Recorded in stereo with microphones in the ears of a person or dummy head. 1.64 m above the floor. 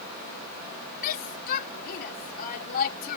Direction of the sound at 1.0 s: 50° left (ahead or behind).